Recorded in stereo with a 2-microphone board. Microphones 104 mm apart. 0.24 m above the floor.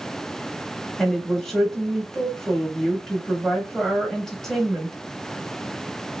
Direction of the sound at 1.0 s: 5° left (ahead or behind).